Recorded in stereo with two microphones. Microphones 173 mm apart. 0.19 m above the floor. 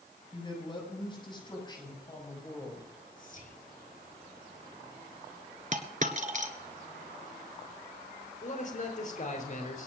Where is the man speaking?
50° left (ahead or behind), 4.5 m.